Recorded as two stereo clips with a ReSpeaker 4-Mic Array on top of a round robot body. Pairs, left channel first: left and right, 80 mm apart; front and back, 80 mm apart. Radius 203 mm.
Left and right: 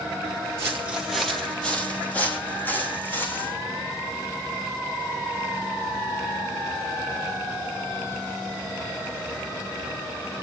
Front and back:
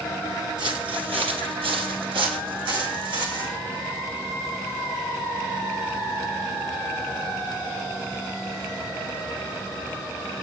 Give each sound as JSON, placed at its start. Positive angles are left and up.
{"t": 0.6, "sound": "footsteps", "azimuth_deg": -145, "distance_m": 1.2}